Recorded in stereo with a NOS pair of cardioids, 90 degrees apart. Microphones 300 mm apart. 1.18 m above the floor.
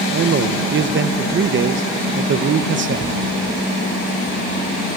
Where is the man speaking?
40° right, 0.9 m.